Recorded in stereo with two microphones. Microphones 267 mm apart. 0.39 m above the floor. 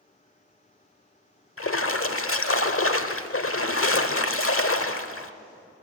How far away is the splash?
About 1.1 m.